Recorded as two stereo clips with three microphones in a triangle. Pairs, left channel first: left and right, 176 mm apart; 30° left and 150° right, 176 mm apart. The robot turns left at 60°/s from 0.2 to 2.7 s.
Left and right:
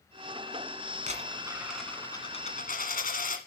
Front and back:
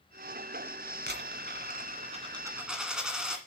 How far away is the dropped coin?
About 1.8 m.